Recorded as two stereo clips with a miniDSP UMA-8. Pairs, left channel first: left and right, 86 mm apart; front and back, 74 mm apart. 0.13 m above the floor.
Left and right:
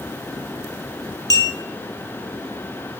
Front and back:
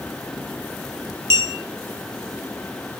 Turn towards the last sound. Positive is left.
turn(degrees=135)